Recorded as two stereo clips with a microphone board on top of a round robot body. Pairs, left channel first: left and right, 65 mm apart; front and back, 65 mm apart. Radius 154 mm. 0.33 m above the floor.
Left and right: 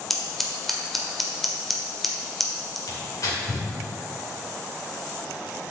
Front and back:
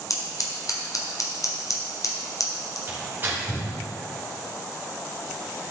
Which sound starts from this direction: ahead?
Scissors, at 0.1 s.